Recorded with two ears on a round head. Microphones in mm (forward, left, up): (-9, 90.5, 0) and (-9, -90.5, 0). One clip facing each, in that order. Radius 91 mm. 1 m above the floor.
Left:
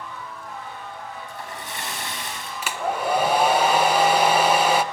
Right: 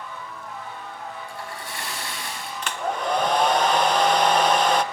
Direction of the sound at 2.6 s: 5° left (ahead or behind).